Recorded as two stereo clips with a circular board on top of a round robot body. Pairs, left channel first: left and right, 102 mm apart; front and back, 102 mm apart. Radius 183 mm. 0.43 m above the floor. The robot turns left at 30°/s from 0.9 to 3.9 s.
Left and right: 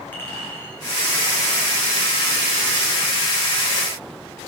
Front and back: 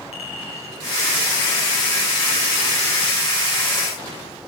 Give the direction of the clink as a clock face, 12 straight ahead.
11 o'clock.